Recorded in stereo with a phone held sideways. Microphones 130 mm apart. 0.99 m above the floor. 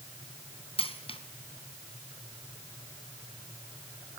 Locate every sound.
0.8 s a dropped coin: 45° left (ahead or behind), 1.7 m